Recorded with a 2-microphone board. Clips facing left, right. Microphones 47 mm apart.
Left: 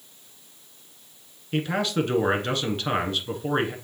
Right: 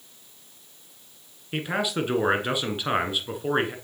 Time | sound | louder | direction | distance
1.5 | a man speaking | left 2 dB | 15° right (ahead or behind) | 1.1 m